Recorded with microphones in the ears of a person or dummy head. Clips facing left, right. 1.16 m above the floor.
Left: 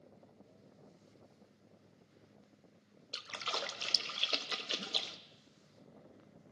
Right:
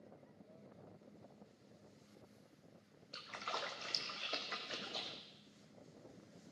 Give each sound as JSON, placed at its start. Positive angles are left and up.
{"t": 3.1, "sound": "a splash", "side_deg": 40, "distance_m": 0.5}